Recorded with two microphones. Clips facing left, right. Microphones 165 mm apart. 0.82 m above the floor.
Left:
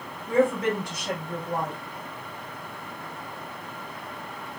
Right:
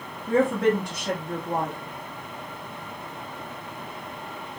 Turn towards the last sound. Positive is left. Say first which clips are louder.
# right 1 dB
turn(degrees=-65)  # may be behind; listen again after turning